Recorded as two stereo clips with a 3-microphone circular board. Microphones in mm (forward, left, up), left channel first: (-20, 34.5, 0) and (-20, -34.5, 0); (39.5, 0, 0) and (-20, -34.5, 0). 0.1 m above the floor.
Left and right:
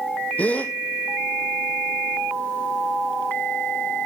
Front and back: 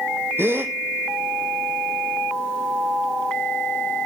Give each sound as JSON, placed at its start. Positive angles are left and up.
{"t": 0.4, "sound": "a gasp", "azimuth_deg": 155, "distance_m": 1.2}